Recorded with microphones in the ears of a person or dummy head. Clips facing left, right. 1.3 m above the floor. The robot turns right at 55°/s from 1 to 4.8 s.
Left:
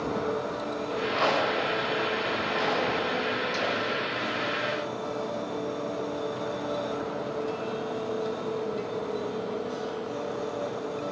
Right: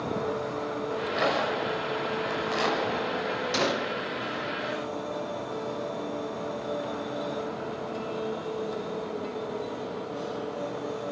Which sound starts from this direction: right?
A gunshot, at 3.5 s.